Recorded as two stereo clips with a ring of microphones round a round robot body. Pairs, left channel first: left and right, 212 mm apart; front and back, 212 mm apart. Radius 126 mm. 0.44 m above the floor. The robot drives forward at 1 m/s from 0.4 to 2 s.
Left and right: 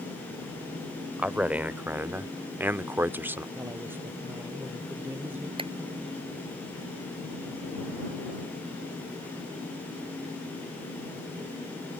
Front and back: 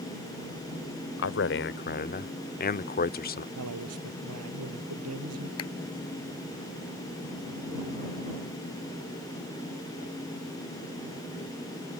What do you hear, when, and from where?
1.2 s a man speaking: 5° right; by 3.5 s 15° right
3.5 s a man speaking: 170° right
5.6 s a clap: 25° right